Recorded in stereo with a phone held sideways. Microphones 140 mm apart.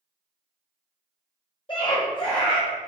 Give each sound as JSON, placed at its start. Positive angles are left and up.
{"t": 1.7, "sound": "a scream", "side_deg": 35, "distance_m": 0.9}